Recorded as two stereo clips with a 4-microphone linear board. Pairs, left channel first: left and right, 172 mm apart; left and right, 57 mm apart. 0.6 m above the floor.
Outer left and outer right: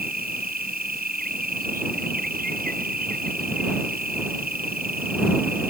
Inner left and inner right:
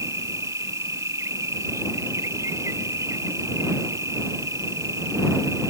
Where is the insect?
60° right (ahead or behind).